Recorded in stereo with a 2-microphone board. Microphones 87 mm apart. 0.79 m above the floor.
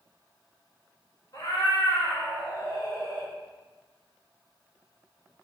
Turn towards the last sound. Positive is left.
turn(degrees=50)  # may be behind; listen again after turning